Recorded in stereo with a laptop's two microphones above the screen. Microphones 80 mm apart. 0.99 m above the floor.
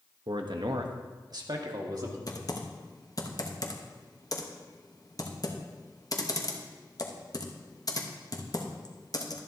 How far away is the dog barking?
I don't hear a dog barking.